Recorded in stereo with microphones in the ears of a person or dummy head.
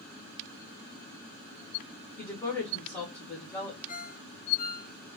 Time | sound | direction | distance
2.2 | a woman speaking | 15° left (ahead or behind) | 1.1 m
3.9 | a ringtone | 45° left (ahead or behind) | 1.8 m